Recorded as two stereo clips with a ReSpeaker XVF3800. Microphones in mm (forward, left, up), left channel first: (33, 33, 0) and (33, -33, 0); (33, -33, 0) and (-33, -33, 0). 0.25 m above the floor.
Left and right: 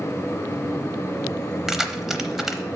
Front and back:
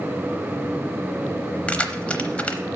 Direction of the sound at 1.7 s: 15° right.